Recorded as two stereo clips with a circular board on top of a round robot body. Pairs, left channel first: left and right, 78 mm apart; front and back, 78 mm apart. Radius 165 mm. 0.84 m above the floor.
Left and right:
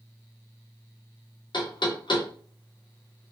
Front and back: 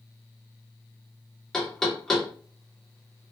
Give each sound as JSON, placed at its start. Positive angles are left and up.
{"t": 1.5, "sound": "knocking", "azimuth_deg": 85, "distance_m": 1.6}